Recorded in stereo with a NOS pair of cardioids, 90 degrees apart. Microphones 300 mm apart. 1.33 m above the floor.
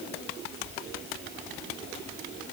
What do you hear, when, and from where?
Only background noise.